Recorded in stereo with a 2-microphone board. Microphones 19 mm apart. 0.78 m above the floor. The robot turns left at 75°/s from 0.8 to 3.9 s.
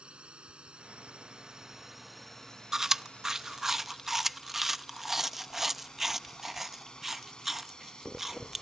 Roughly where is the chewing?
Right.